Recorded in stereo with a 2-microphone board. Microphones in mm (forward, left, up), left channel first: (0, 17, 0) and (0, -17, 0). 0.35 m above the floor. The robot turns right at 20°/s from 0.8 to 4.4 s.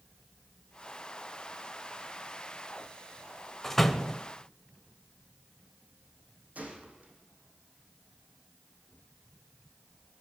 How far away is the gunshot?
About 5 m.